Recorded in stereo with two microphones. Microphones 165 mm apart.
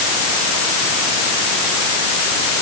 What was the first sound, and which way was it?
Only background noise.